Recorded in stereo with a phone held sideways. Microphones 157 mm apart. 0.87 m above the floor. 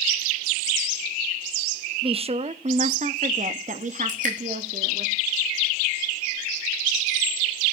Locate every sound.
2.0 s a woman speaking: 35° right (ahead or behind), 0.8 m; by 5.1 s 55° right (ahead or behind), 2.5 m
4.1 s dripping: 55° right (ahead or behind), 4 m